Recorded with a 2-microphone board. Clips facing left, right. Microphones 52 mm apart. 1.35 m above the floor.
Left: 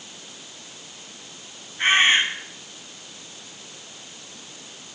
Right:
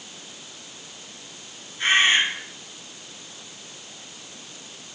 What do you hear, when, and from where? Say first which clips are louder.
1.8 s a bird: left 1 dB; 35° left (ahead or behind), 7 m